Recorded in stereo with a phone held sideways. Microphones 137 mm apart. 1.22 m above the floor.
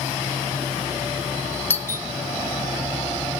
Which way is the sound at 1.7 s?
15° left (ahead or behind).